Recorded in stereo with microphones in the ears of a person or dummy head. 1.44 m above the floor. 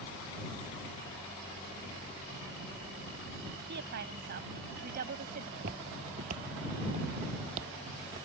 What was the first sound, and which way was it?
A woman speaking, 65° right (ahead or behind).